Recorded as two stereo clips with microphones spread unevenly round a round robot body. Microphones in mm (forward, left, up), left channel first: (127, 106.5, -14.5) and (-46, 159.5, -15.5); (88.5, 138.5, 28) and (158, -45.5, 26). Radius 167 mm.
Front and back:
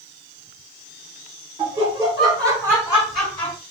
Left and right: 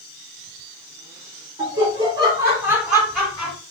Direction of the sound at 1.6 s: 125° right.